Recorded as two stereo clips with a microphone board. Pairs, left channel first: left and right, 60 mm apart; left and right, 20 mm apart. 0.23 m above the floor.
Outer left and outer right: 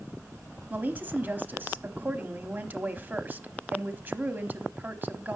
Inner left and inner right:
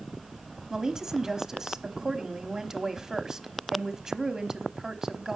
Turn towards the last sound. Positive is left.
turn(degrees=-30)  # may be behind; listen again after turning